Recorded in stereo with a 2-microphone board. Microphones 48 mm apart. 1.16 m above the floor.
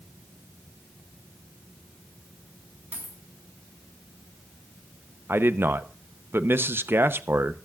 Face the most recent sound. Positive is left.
turn(degrees=-55)  # may be behind; listen again after turning